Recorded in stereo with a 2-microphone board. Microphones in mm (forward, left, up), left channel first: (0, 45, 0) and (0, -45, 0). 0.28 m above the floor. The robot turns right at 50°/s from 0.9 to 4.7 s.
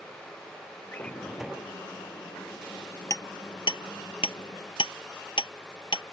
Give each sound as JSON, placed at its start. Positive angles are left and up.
{"t": 0.9, "sound": "a drawer", "azimuth_deg": 160}
{"t": 3.1, "sound": "hammering", "side_deg": 30}